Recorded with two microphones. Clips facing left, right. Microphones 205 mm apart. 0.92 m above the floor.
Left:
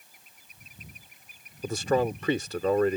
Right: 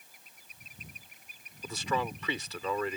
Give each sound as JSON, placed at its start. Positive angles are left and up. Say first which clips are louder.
{"t": 1.6, "sound": "a man speaking", "louder": "left 9 dB", "side_deg": 45}